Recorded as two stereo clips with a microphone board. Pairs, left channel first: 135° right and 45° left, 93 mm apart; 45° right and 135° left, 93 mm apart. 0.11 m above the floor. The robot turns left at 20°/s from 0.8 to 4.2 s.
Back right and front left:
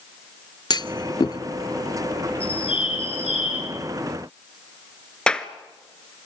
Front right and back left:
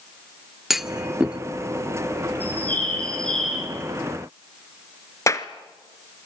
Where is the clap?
60° right, 1.1 m.